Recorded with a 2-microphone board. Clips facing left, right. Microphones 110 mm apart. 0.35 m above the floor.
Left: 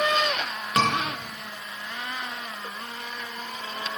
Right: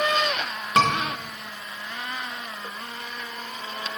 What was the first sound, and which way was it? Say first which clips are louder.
A scream: right 3 dB; 25° right (ahead or behind).